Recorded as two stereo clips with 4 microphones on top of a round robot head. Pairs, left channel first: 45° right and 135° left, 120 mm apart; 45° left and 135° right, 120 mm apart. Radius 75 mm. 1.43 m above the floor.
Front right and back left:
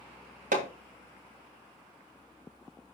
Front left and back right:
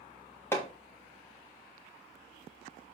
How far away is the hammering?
About 2 m.